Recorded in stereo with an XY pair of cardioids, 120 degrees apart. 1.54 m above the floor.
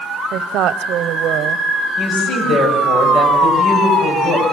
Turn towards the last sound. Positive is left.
turn(degrees=50)